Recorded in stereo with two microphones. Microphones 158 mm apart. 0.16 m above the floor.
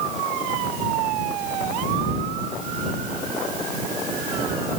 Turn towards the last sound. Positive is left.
No sound to turn to.